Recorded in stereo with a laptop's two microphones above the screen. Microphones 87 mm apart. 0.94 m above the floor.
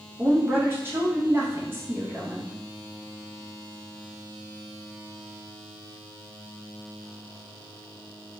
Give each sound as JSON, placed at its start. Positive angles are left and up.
{"t": 0.2, "sound": "a woman speaking", "side_deg": -25, "distance_m": 0.6}